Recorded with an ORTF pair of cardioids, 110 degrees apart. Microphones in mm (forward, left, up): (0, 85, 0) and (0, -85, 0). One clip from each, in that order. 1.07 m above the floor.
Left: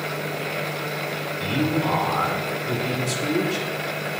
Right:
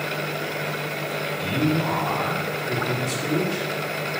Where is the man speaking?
30° left, 3 m.